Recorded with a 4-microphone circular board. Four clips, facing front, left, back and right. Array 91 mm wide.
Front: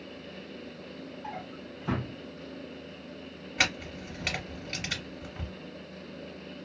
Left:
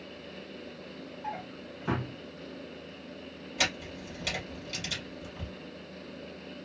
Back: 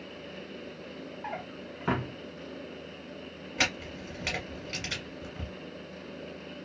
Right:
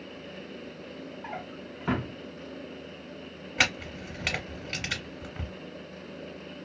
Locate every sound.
1.2 s a drawer: 160° right, 0.9 m
3.6 s a camera shutter: 80° right, 1.2 m